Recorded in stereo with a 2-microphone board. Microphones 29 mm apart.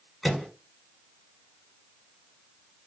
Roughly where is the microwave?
Centre.